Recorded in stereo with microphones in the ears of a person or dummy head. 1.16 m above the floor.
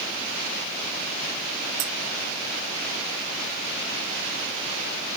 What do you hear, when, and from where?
1.8 s a dropped coin: 55° right (ahead or behind)